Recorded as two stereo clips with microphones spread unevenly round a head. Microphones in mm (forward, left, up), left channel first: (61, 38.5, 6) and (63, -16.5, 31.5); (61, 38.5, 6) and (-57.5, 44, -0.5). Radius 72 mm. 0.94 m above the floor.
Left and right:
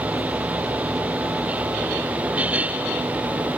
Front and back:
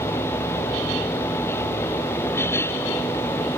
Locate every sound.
Only background noise.